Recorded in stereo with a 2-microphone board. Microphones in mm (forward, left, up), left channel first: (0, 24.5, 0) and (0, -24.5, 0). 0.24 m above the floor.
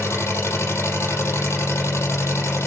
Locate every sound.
0.0 s an engine running: 75° left (ahead or behind), 4 m